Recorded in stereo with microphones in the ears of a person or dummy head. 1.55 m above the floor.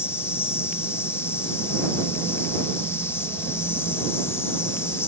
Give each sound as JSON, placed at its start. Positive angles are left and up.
{"t": 0.0, "sound": "an insect", "side_deg": 10}